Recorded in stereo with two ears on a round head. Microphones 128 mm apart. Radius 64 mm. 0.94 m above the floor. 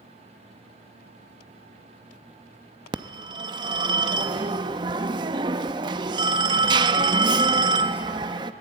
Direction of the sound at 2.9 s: 30° right (ahead or behind).